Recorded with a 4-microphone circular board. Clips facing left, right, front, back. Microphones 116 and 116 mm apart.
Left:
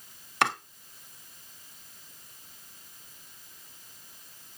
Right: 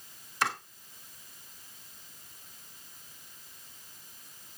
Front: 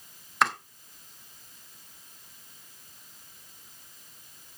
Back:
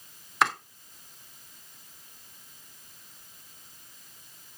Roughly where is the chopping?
Left.